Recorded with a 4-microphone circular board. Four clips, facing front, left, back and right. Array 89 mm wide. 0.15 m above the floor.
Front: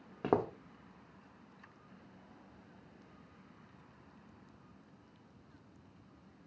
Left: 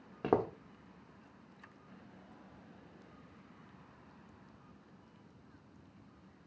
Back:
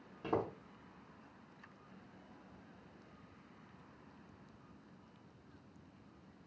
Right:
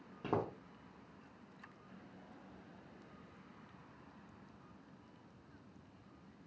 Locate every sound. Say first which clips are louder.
0.2 s footsteps: left 6 dB, front 5 dB; 35° left, 0.6 m